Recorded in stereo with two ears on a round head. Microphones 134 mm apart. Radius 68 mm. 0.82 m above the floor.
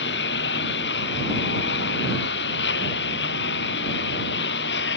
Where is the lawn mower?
80° left.